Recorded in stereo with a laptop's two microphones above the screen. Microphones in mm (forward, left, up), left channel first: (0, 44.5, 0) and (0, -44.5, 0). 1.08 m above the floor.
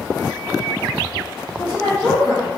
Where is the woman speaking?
30° left (ahead or behind), 1.6 m.